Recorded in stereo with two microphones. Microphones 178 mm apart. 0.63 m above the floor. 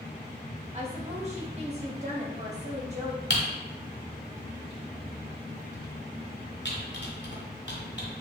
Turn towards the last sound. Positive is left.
turn(degrees=80)